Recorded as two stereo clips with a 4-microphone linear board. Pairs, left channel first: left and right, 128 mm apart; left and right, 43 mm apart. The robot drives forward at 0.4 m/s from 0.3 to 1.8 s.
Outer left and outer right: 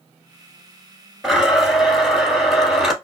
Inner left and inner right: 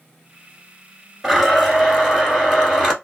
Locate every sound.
1.2 s a blender: centre (ahead or behind), 1.4 m